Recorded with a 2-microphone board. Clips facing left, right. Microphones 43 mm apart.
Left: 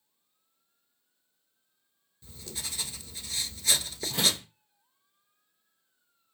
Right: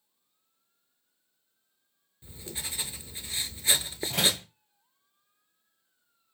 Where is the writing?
25° right (ahead or behind), 0.6 m.